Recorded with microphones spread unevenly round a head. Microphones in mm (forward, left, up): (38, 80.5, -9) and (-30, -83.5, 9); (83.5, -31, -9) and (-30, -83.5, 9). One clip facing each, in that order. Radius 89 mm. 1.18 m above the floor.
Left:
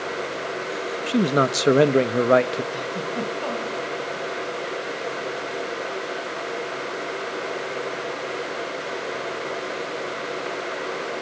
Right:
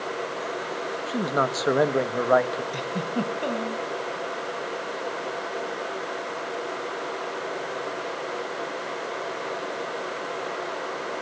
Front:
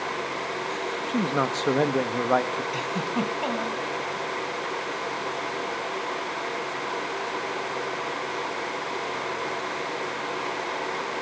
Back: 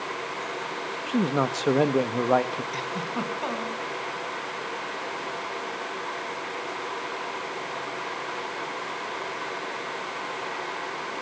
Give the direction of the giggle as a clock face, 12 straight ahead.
2 o'clock.